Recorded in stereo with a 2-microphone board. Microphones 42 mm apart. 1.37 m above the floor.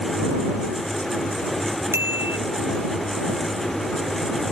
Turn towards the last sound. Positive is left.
turn(degrees=-75)  # may be behind; listen again after turning